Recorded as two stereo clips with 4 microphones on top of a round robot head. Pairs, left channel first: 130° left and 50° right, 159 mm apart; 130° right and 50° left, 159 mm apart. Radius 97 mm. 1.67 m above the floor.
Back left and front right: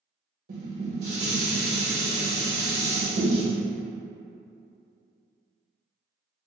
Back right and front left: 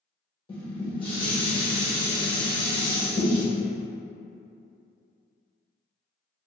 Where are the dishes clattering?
75° right, 1.1 m.